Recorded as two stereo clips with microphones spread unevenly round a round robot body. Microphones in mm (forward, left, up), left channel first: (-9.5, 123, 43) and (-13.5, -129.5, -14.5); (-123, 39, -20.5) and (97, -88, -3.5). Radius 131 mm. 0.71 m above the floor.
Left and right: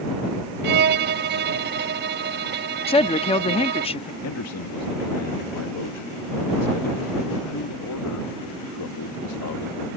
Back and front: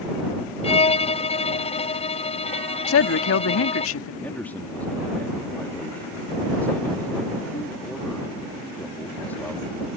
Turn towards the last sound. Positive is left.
turn(degrees=70)